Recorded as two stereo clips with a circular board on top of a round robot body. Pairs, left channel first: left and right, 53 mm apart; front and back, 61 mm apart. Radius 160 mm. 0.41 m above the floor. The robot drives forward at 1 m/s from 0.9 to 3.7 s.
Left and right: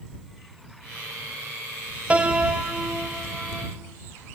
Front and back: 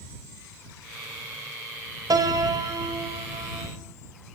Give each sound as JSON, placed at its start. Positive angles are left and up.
{"t": 2.1, "sound": "a piano", "azimuth_deg": -160, "distance_m": 2.0}